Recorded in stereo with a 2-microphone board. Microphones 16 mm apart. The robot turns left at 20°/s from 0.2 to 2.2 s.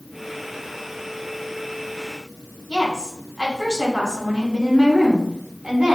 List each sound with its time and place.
2.7 s a woman speaking: 40° right (ahead or behind), 2.5 m